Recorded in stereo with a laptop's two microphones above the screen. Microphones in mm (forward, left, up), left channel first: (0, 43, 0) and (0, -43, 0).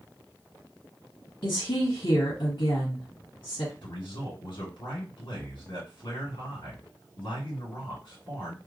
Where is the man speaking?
80° left, 2.5 m.